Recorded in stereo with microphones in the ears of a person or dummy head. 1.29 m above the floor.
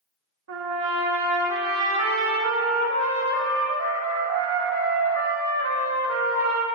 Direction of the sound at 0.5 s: 80° right.